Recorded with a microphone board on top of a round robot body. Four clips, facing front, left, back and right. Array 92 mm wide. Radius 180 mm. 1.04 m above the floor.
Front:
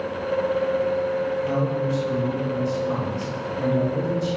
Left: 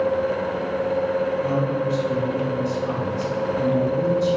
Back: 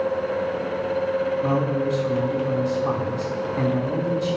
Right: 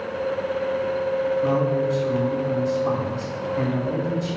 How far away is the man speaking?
About 4 m.